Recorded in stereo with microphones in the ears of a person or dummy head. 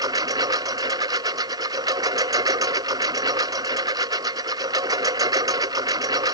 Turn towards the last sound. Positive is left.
turn(degrees=-20)  # may be behind; listen again after turning